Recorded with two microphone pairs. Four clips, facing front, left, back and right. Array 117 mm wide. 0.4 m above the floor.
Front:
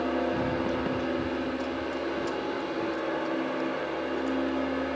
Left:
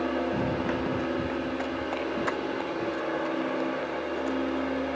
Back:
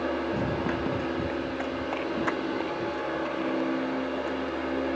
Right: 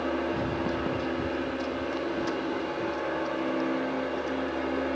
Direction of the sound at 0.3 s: 125° left.